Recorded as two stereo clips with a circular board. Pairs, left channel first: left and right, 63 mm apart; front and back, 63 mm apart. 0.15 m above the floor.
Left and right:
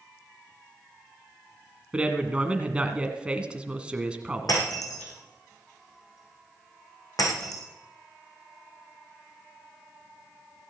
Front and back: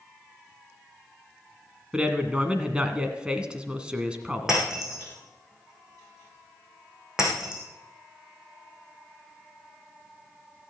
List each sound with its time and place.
1.9 s a man speaking: 130° right, 1.7 m
4.5 s breaking glass: 100° left, 5.5 m